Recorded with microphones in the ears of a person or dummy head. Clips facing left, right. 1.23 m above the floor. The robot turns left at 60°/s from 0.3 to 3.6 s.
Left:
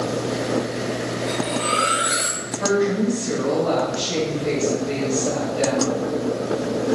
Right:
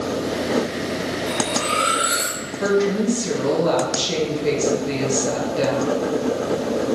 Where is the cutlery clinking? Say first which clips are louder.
Even; 170° right, 0.9 m; by 2.4 s 120° left, 0.9 m.